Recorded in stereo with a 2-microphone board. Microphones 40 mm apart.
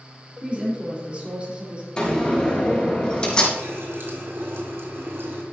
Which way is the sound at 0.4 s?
30° right (ahead or behind).